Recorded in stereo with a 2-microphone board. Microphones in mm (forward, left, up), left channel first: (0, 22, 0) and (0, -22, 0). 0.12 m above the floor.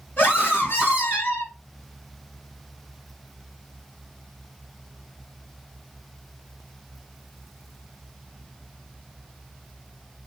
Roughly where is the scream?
Left.